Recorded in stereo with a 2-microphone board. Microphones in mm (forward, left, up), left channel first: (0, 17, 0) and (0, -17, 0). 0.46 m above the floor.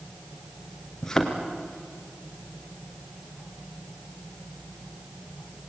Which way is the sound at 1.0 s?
15° left (ahead or behind).